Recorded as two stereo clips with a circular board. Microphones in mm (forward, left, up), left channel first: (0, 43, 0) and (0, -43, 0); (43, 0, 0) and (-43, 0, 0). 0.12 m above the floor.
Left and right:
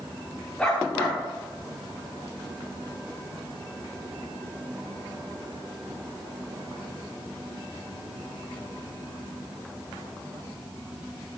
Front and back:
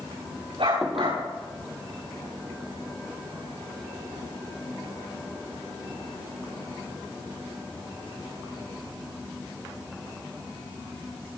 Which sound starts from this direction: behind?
A dog barking, at 0.6 s.